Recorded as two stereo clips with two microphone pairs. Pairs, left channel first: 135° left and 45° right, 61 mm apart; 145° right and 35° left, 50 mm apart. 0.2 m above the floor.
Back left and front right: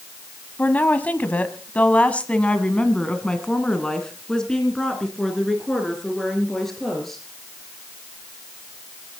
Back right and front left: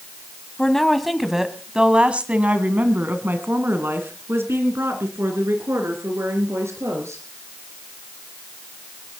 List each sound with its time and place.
0.6 s a woman speaking: 145° left, 1.4 m; by 7.2 s 50° left, 3.5 m